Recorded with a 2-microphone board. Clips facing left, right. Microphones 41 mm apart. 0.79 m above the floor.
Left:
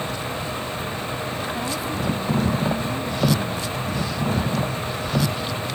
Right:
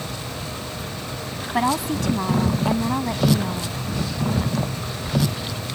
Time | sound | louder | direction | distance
1.5 | a woman speaking | right 5 dB | 85° right | ?